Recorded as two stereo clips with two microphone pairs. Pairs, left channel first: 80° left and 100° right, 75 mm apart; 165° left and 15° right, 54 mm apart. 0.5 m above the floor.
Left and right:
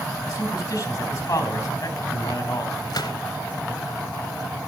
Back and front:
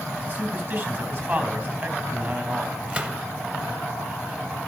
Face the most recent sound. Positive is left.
turn(degrees=50)